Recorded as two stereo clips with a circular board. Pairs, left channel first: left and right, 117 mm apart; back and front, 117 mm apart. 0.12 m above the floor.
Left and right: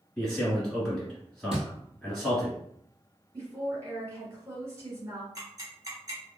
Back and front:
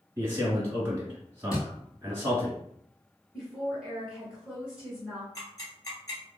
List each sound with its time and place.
0.2 s a man speaking: 5° left, 1.1 m
1.5 s a thud: 120° right, 0.8 m
3.3 s a woman speaking: 75° right, 1.4 m
5.3 s ticking: 135° right, 1.6 m